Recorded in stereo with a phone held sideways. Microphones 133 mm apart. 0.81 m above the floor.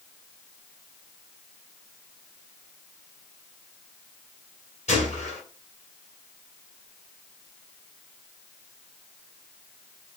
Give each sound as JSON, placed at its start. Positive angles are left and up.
{"t": 4.9, "sound": "a gunshot", "side_deg": 55, "distance_m": 2.5}